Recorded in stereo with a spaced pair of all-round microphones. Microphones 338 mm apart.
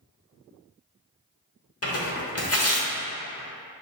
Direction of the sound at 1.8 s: 40° left (ahead or behind).